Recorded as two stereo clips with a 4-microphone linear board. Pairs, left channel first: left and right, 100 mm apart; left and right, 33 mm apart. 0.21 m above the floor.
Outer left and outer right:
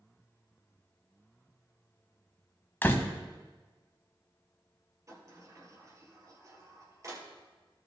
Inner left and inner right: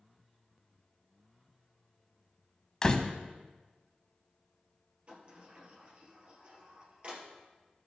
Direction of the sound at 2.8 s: 20° left (ahead or behind).